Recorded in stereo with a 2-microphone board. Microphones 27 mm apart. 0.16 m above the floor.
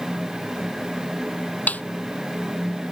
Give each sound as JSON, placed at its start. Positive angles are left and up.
{"t": 1.7, "sound": "a snare drum", "side_deg": 75}